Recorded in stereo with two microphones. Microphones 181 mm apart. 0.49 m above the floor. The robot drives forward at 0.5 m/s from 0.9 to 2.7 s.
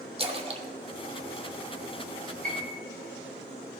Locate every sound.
0.2 s a splash: 30° right (ahead or behind), 0.8 m; by 2.0 s 20° right (ahead or behind), 1.1 m
2.4 s a piano: 50° right (ahead or behind), 1.7 m; by 2.7 s 55° right (ahead or behind), 1.7 m